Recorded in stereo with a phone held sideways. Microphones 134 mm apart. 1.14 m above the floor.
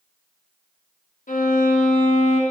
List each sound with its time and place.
1.3 s a violin: 85° left, 1.6 m